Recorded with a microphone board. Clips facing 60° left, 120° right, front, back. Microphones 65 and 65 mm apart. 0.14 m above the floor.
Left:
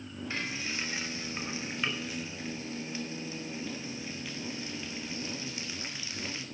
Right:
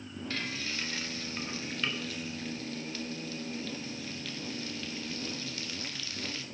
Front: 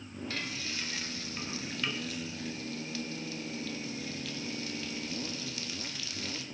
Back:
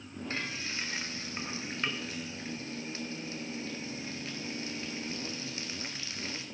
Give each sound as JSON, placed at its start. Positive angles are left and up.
{"t": 0.3, "sound": "frying", "azimuth_deg": 130, "distance_m": 1.5}